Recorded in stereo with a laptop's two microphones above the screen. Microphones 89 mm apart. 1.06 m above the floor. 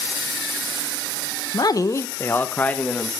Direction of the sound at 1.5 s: 50° left (ahead or behind).